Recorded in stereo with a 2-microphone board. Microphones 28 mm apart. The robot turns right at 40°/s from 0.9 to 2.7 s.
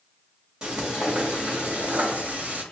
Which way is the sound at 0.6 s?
150° right.